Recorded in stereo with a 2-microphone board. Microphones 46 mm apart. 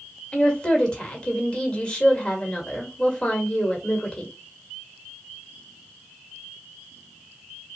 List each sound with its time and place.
0.3 s a woman speaking: 20° left (ahead or behind), 1.4 m